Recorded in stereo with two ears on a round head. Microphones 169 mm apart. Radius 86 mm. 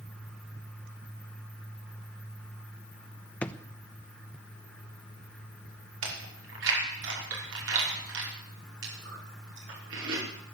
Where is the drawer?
5° left (ahead or behind), 0.8 m.